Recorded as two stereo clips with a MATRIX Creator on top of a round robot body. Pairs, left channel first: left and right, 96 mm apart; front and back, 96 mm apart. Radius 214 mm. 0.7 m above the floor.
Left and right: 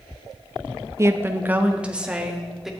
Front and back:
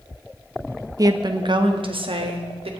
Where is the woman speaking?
140° right, 1.4 m; by 2.7 s 175° right, 3 m.